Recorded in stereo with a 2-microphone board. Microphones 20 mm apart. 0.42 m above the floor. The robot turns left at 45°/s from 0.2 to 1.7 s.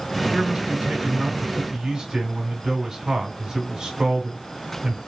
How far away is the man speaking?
About 1.5 m.